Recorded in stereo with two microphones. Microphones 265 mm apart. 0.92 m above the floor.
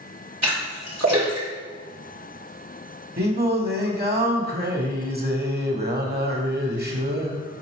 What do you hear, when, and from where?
0.4 s a splash: 75° right (ahead or behind), 3.5 m
3.2 s singing: 35° right (ahead or behind), 1.2 m